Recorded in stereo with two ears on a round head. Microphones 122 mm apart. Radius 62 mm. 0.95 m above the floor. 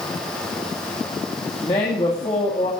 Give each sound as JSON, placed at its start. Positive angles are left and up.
{"t": 1.6, "sound": "a man speaking", "side_deg": 35, "distance_m": 2.5}